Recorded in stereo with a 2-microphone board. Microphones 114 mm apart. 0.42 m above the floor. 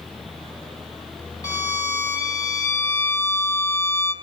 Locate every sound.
1.4 s a violin: 30° left (ahead or behind), 1.9 m